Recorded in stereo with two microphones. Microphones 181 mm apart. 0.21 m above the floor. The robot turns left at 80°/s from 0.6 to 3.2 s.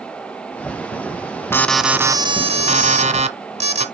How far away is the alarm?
About 1.3 m.